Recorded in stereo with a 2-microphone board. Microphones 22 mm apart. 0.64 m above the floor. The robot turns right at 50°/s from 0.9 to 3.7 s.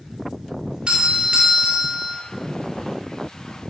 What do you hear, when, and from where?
0.9 s a doorbell: 90° right, 2.5 m; by 2.2 s 25° right, 2.5 m